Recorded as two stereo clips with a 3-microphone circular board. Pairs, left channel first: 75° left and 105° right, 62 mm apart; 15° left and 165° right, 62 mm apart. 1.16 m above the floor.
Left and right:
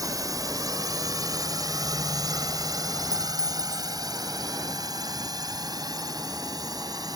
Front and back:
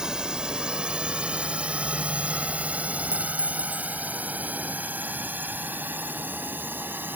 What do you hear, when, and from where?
0.0 s a drone: 85° right; by 7.2 s 105° right
3.1 s a clink: 135° right